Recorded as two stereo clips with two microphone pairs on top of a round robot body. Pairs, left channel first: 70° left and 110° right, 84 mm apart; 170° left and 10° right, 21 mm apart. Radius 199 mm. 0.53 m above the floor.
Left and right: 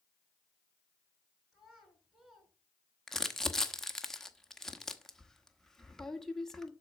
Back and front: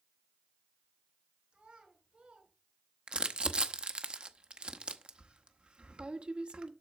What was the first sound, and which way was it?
A child speaking, 20° right.